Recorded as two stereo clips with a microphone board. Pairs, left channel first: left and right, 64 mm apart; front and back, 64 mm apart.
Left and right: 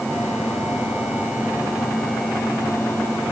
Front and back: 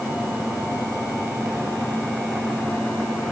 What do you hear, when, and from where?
Only background noise.